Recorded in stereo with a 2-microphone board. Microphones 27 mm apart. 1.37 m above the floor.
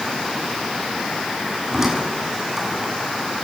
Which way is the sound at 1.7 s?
20° right (ahead or behind).